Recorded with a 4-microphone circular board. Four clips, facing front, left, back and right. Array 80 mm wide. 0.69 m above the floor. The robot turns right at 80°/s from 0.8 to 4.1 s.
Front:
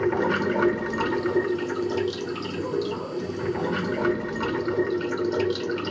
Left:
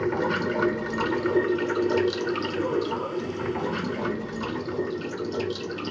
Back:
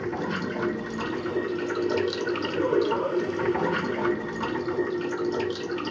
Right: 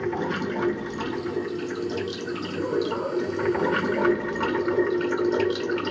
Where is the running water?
25° left, 1.0 m; by 5.9 s 70° right, 1.0 m.